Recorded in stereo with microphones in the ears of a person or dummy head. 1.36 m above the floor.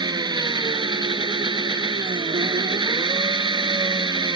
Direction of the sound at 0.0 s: 20° right (ahead or behind).